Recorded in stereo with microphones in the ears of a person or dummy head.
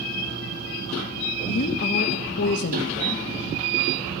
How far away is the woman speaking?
About 0.8 m.